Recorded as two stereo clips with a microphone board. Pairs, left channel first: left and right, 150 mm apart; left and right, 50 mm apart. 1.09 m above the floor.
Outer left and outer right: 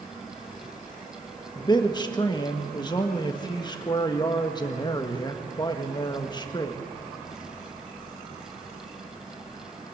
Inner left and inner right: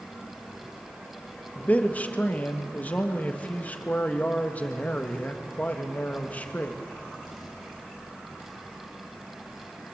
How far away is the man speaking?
About 1.4 m.